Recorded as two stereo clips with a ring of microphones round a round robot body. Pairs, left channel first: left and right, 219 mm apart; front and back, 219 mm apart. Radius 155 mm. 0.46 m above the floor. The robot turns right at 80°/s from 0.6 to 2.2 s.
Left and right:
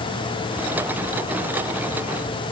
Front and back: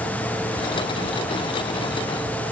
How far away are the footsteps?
No footsteps in this recording.